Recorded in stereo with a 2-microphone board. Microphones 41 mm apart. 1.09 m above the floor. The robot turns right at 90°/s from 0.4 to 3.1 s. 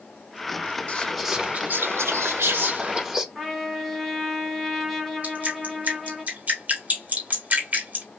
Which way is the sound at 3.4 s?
Centre (ahead or behind).